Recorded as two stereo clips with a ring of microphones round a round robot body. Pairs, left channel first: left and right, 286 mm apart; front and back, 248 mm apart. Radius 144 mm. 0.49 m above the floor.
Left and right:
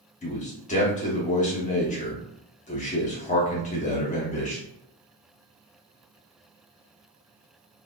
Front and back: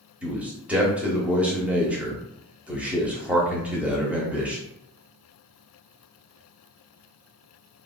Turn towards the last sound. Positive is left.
turn(degrees=100)